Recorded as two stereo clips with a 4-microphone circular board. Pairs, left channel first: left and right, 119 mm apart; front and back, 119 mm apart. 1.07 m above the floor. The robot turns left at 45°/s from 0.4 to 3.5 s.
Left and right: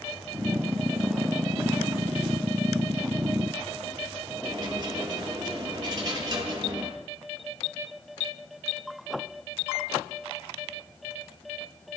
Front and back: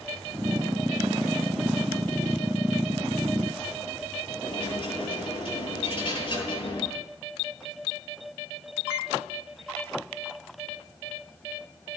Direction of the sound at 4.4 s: 35° right.